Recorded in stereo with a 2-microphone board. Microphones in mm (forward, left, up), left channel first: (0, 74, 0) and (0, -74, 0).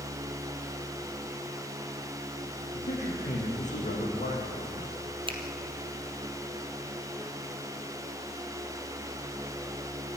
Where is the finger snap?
35° right (ahead or behind), 2.5 m.